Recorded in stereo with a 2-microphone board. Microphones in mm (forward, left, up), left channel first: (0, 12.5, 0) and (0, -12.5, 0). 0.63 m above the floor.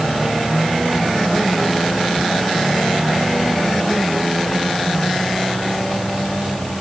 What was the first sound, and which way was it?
Only background noise.